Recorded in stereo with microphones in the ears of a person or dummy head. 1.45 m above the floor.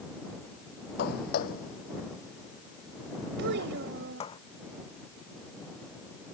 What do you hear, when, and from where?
1.0 s footsteps: 60° left (ahead or behind); by 4.4 s 40° left (ahead or behind)
3.4 s a child speaking: 65° right (ahead or behind)